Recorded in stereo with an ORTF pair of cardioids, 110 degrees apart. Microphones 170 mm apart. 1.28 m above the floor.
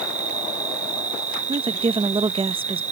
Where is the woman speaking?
30° right.